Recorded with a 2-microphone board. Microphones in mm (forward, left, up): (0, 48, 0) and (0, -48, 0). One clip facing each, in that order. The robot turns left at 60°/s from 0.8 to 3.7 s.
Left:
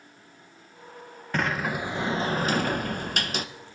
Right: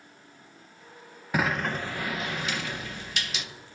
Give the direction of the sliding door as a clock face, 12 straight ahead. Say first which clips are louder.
Even; 6 o'clock.